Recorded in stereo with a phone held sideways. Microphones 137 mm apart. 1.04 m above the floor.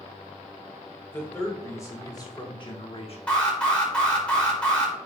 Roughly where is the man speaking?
Centre.